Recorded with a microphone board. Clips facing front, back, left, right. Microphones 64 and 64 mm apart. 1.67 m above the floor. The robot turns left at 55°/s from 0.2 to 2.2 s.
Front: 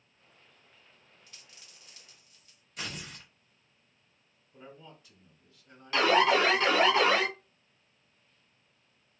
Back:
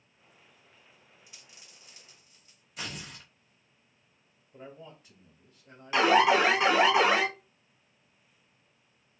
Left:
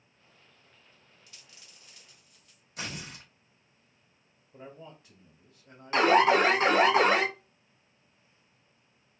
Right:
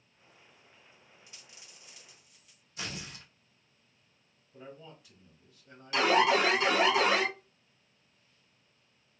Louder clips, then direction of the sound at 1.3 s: Even, even; 115° right.